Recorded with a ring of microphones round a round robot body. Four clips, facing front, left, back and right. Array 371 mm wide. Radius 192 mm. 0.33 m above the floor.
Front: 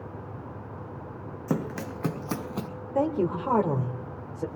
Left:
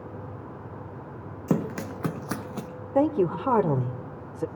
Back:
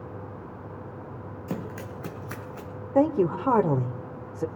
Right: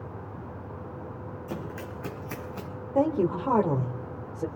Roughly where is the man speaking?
Behind left.